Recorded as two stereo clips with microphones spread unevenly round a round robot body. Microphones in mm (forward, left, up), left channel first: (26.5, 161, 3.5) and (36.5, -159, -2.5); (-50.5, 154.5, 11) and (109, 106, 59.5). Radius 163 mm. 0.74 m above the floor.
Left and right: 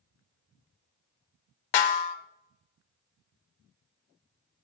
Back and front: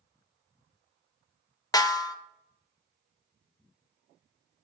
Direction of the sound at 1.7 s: 100° left.